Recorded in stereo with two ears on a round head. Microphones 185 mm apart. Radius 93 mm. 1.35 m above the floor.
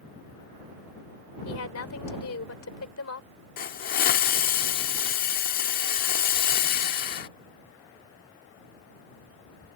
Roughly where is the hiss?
Left.